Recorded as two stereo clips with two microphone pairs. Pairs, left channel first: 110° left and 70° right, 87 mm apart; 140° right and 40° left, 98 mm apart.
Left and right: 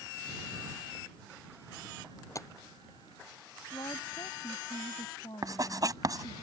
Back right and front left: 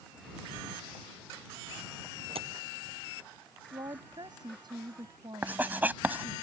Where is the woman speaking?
80° left.